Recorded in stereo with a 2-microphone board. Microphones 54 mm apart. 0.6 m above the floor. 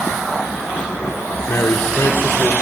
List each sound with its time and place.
1.5 s a man speaking: 55° left (ahead or behind), 1.7 m; by 2.5 s 40° left (ahead or behind), 2 m